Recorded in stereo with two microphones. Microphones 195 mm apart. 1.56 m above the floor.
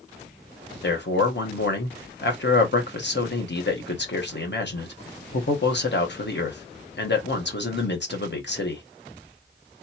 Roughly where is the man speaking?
Left.